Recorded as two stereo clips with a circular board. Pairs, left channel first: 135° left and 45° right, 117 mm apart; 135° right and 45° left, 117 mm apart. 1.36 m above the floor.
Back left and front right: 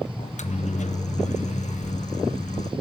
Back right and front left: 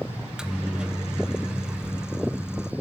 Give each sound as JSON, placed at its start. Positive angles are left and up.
{"t": 0.2, "sound": "a microwave", "azimuth_deg": 130, "distance_m": 0.6}